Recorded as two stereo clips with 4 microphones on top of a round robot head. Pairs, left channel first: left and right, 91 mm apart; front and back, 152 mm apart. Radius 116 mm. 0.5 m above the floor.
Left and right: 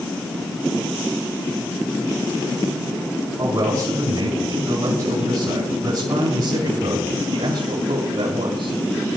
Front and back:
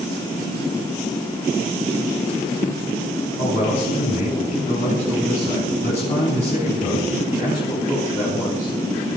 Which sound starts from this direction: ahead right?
A man speaking, at 3.4 s.